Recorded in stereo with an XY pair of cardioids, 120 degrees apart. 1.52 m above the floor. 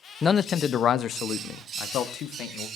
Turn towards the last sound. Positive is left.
turn(degrees=70)